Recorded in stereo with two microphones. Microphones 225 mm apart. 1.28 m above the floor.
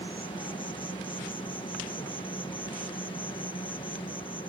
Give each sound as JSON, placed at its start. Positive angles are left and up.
{"t": 0.0, "sound": "an insect", "side_deg": 20}